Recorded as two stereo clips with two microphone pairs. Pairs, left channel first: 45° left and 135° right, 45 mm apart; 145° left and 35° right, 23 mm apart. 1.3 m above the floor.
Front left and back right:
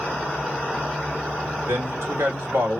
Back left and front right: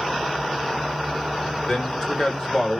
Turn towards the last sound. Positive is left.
turn(degrees=-150)